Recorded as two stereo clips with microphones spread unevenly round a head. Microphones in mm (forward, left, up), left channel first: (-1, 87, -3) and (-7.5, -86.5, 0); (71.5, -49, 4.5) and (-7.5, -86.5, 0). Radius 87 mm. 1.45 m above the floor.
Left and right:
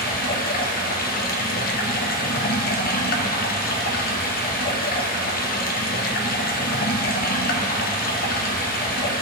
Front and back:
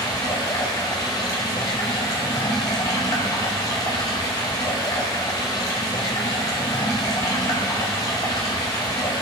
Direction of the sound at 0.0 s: 70° left.